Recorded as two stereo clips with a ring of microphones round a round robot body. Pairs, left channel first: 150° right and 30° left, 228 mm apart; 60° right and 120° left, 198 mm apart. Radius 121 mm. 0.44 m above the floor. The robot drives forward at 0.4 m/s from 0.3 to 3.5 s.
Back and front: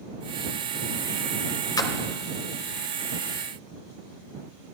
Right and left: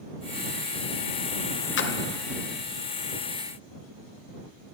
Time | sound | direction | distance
1.8 | a splash | 75° right | 0.9 m